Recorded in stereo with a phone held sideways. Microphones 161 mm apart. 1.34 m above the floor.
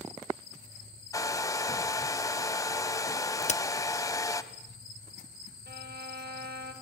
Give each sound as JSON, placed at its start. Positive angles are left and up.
{"t": 1.1, "sound": "a hair dryer", "side_deg": 20, "distance_m": 1.2}
{"t": 3.4, "sound": "a crack", "side_deg": 45, "distance_m": 0.9}
{"t": 5.7, "sound": "a violin", "side_deg": -85, "distance_m": 4.0}